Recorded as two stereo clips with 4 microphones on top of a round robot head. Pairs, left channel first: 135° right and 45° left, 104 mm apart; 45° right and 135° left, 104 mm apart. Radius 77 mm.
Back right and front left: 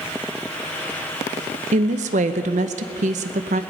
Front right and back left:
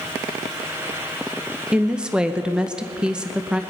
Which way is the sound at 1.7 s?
55° left.